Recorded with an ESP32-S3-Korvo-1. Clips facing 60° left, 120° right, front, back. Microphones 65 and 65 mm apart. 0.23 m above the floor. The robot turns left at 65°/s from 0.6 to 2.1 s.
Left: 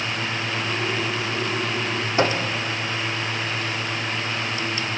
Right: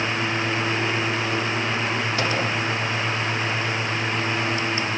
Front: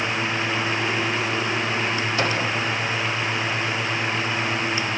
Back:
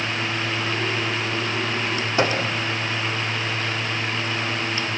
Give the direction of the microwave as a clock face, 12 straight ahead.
8 o'clock.